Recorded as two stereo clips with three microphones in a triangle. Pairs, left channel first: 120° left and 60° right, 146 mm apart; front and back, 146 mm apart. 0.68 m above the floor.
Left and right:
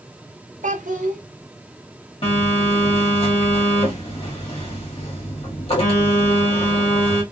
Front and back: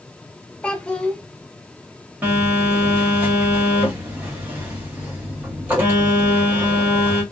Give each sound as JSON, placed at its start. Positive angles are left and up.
{"t": 0.6, "sound": "a child speaking", "azimuth_deg": -80, "distance_m": 0.7}
{"t": 2.2, "sound": "a phone buzzing", "azimuth_deg": 110, "distance_m": 1.4}